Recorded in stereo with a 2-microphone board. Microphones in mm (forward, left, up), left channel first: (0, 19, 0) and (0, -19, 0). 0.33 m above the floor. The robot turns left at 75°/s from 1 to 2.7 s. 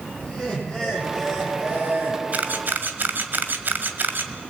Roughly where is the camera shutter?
Right.